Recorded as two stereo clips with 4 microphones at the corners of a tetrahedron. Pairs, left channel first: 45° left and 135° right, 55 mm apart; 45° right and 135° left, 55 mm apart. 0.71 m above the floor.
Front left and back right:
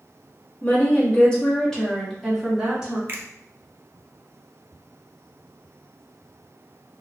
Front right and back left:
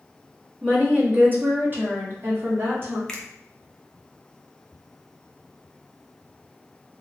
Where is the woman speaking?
85° left, 1.4 m; by 3.0 s 155° left, 1.6 m.